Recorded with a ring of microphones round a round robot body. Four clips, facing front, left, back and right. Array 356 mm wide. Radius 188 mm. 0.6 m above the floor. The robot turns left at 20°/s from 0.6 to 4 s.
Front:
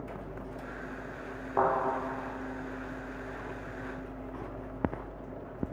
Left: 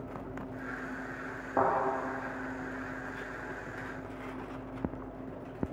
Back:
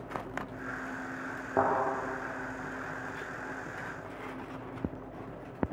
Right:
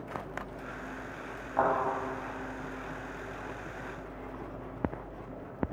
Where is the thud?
150° left, 2.5 m.